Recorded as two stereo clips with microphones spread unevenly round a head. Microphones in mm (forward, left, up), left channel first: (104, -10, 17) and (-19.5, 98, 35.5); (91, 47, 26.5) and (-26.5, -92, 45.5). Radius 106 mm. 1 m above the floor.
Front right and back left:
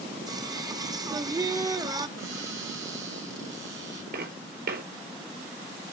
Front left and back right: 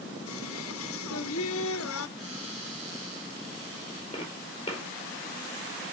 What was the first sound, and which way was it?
Singing, 75° left.